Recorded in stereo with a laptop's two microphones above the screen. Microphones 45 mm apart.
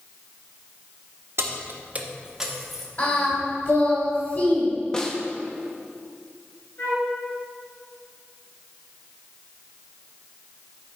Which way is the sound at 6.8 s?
65° left (ahead or behind).